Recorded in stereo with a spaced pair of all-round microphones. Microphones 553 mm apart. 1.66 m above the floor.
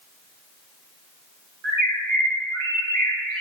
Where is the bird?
60° right (ahead or behind), 1.7 m.